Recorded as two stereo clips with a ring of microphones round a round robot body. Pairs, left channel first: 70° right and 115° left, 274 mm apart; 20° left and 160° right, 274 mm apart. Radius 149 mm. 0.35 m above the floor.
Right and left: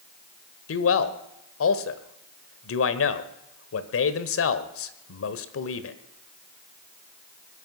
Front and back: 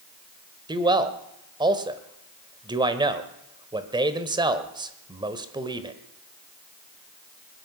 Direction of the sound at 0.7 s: 85° right.